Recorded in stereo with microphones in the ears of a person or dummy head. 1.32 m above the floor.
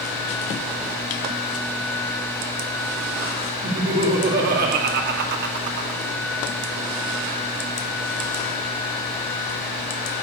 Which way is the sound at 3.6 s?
65° right (ahead or behind).